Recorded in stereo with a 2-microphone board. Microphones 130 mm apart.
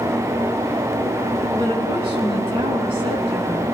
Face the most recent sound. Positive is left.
turn(degrees=-45)  # may be behind; listen again after turning